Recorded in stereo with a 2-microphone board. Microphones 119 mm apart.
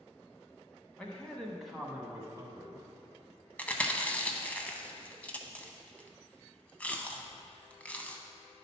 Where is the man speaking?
10° left (ahead or behind), 1.2 m; by 2.8 s 25° right (ahead or behind), 1.1 m.